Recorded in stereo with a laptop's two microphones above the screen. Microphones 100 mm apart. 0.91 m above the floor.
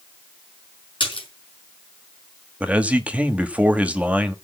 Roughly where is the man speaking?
Centre.